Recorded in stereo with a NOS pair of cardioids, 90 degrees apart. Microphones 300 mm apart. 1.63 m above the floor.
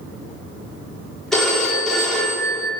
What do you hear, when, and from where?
1.3 s a phone ringing: straight ahead, 2.5 m